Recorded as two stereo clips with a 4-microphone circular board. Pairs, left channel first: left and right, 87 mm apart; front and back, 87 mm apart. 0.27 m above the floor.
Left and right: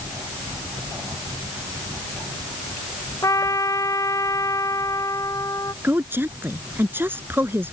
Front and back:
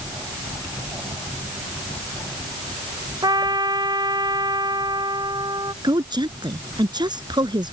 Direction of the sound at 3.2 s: 140° left.